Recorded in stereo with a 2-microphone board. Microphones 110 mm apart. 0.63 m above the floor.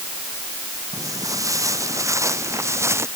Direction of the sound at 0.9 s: 30° right (ahead or behind).